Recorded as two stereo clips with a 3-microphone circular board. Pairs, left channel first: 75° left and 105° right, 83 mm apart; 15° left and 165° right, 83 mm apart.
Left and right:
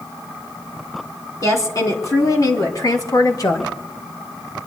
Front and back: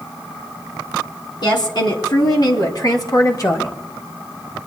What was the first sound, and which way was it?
A woman speaking, 30° left.